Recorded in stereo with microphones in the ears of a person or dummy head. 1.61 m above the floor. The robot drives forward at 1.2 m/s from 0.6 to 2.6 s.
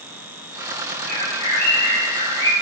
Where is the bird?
45° right (ahead or behind), 2.5 m; by 2.5 s 30° right (ahead or behind), 4 m.